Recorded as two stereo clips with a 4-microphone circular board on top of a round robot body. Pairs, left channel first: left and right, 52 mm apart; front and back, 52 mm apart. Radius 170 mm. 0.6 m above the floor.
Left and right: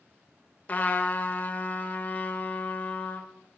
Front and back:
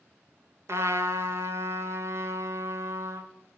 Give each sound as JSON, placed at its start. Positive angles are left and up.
{"t": 0.7, "sound": "a trumpet", "azimuth_deg": 150, "distance_m": 1.1}